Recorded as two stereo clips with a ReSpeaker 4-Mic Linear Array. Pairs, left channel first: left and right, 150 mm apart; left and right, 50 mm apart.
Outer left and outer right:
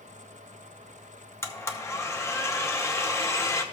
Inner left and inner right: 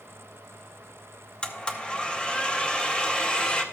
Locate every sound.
1.4 s a blender: 20° left (ahead or behind), 0.8 m